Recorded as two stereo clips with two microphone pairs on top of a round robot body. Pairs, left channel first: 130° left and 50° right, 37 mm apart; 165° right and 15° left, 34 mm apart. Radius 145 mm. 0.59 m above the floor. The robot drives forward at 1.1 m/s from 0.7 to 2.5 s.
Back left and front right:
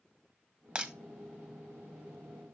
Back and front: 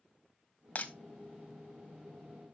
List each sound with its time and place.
0.8 s breaking glass: 110° right, 1.4 m; by 0.9 s 120° right, 1.5 m